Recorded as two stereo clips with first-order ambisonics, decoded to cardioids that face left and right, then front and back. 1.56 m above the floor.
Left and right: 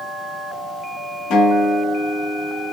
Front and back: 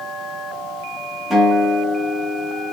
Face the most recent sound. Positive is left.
turn(degrees=90)